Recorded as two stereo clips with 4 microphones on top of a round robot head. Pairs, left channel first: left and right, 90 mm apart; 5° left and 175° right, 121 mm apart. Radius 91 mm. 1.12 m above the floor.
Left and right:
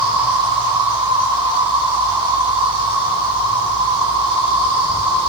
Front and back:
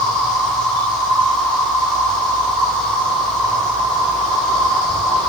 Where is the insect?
80° right, 8 m.